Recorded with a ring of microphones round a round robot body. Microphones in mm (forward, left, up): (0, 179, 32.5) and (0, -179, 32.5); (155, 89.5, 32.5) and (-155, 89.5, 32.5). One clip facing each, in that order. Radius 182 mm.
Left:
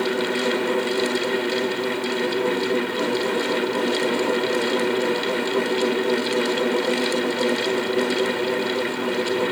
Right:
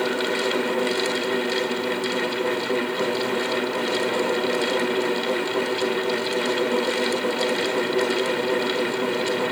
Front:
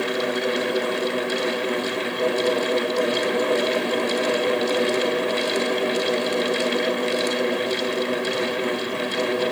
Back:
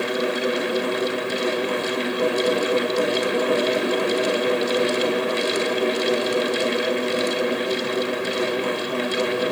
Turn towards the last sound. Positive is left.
No sound to turn to.